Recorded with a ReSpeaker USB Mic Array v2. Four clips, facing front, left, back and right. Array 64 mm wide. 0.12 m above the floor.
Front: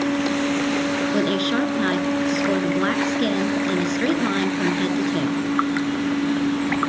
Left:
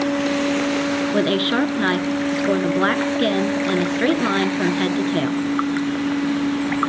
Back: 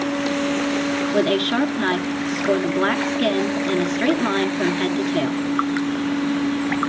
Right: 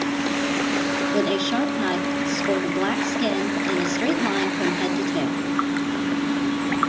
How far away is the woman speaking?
About 1.3 m.